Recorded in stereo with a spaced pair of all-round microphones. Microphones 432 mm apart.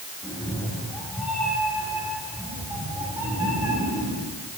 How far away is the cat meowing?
About 8 m.